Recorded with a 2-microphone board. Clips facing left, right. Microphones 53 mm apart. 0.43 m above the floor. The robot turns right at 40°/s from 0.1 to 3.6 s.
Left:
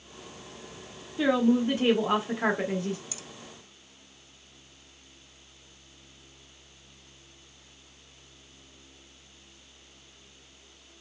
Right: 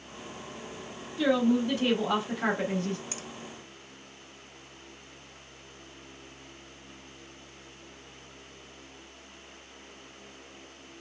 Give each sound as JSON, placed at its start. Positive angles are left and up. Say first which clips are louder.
{"t": 1.2, "sound": "a woman speaking", "louder": "left 1 dB", "side_deg": 25, "distance_m": 1.3}
{"t": 3.1, "sound": "a finger snap", "louder": "right 4 dB", "side_deg": -45, "distance_m": 0.8}